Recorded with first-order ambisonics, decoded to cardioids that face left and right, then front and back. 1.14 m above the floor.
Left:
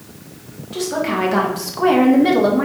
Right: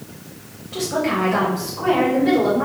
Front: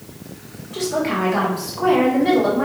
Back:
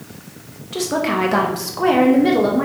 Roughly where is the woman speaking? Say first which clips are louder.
Left 1 dB, back 2 dB; behind.